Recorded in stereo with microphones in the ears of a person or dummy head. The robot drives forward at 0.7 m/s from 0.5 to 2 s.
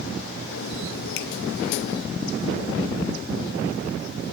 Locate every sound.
1.2 s a finger snap: 80° left, 1.3 m